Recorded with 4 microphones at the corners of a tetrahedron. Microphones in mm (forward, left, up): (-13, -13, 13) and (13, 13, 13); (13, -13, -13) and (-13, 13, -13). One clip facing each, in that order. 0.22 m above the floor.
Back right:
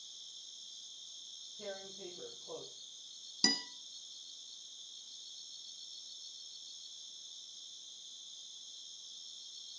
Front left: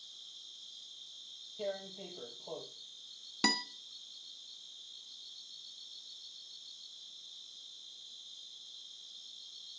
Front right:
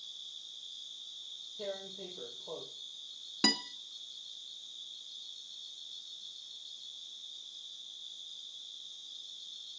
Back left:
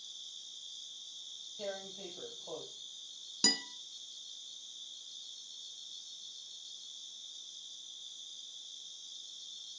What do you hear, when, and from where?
0.0 s an insect: 15° left, 2.5 m
1.6 s tearing paper: 65° left, 6 m
3.4 s a guitar: 10° left, 1.2 m